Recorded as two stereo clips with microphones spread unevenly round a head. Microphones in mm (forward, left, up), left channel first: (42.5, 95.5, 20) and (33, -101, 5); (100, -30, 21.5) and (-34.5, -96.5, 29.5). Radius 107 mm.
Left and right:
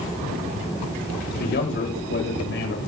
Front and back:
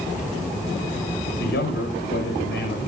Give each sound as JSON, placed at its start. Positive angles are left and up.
{"t": 1.4, "sound": "a man speaking", "azimuth_deg": 55, "distance_m": 6.0}